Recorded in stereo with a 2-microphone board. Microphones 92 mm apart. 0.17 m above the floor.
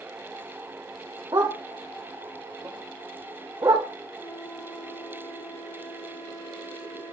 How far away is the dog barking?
About 3 m.